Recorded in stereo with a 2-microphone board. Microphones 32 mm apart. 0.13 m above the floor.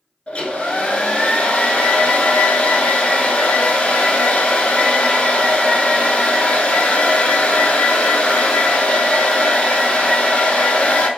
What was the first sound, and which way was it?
A hair dryer, 40° left (ahead or behind).